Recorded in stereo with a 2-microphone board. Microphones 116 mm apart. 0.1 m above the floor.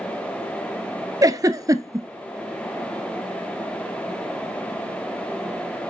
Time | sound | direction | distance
1.2 | a giggle | 30° right (ahead or behind) | 0.6 m